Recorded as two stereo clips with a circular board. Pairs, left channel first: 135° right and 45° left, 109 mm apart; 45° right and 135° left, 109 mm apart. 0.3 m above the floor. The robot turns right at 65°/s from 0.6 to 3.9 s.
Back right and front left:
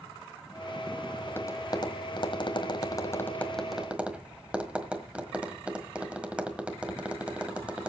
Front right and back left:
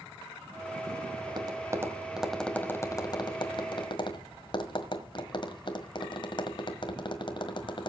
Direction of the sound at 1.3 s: 155° left.